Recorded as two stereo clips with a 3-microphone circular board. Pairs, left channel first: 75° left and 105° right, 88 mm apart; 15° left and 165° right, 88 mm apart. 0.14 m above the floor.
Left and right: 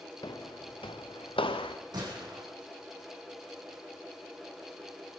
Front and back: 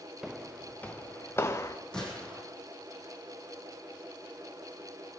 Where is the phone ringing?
No phone ringing in this recording.